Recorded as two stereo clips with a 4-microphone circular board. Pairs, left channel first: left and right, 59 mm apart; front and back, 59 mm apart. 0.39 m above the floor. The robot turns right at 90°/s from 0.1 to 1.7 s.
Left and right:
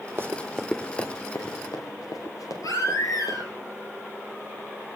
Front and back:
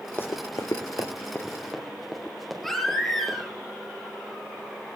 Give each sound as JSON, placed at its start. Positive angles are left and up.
{"t": 0.2, "sound": "running footsteps", "azimuth_deg": -50, "distance_m": 0.7}
{"t": 2.6, "sound": "a baby crying", "azimuth_deg": 90, "distance_m": 6.5}